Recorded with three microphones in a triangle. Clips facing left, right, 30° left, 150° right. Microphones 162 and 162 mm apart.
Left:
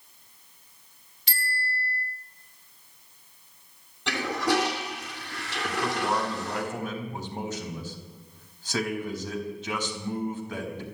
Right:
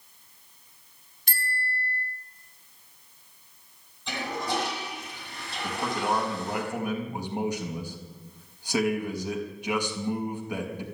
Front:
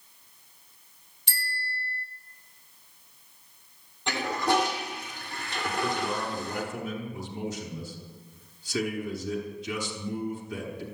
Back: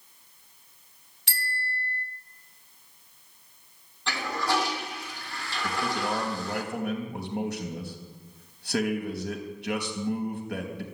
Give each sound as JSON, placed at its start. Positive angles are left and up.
{"t": 1.3, "sound": "a bicycle bell", "azimuth_deg": -130, "distance_m": 3.0}
{"t": 4.1, "sound": "a toilet flushing", "azimuth_deg": 100, "distance_m": 3.5}
{"t": 5.6, "sound": "a man speaking", "azimuth_deg": -170, "distance_m": 4.5}